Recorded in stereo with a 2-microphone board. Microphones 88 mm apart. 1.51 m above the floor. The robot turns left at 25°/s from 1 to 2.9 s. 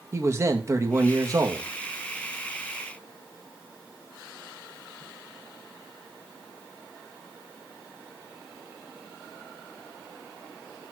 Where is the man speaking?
30° right (ahead or behind), 1.9 m; by 1.7 s 50° right (ahead or behind), 1.9 m.